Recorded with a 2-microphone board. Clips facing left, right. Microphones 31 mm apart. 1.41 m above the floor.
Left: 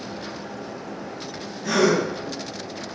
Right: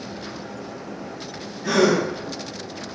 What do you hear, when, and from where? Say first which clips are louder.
1.6 s a gasp: right 1 dB; 25° right (ahead or behind), 0.9 m